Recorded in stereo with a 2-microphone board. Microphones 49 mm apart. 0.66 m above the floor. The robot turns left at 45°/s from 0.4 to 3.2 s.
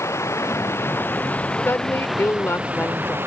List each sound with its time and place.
0.0 s running water: 75° left; by 3.3 s 50° right
1.6 s a woman speaking: 115° left; by 3.2 s 50° left